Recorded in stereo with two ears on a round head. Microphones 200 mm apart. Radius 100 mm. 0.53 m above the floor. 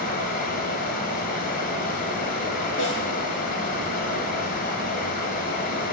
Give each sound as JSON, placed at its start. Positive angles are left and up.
{"t": 0.0, "sound": "running water", "side_deg": 45, "distance_m": 1.8}
{"t": 2.8, "sound": "a snare drum", "side_deg": 55, "distance_m": 5.0}